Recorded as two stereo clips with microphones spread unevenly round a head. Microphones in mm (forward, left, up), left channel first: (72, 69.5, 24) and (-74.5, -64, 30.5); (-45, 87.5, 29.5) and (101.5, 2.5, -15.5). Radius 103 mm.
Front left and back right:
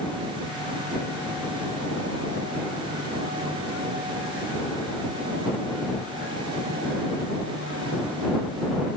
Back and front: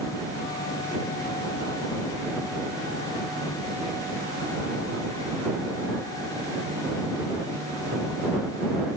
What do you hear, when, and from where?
Only background noise.